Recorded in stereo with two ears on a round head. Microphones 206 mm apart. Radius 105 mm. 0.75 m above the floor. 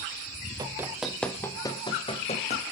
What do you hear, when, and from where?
0.6 s running footsteps: 15° right (ahead or behind), 1.8 m; by 2.6 s 30° left (ahead or behind), 3 m